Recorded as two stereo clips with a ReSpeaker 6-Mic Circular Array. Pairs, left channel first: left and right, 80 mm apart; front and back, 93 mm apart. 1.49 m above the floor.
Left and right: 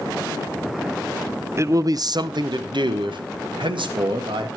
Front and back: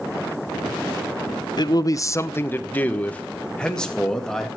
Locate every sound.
1.6 s a man speaking: 35° right, 0.6 m; by 4.5 s 85° right, 2 m